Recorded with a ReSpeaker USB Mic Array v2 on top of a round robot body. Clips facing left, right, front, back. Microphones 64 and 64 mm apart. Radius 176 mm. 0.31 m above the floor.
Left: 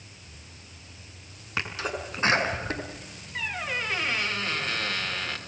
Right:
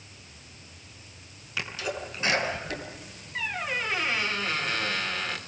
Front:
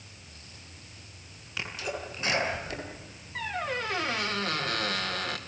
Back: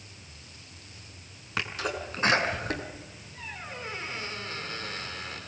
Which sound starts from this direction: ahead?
A squeak, at 3.4 s.